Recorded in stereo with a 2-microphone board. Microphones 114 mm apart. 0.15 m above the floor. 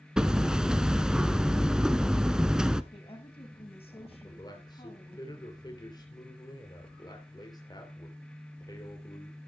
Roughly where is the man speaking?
Left.